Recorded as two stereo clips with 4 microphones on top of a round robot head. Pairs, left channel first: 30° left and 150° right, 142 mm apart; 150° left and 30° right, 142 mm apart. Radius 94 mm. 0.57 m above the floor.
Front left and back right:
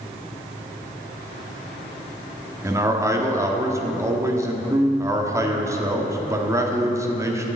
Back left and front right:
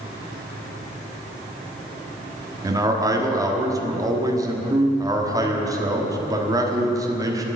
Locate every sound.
2.6 s a man speaking: 90° right, 1.5 m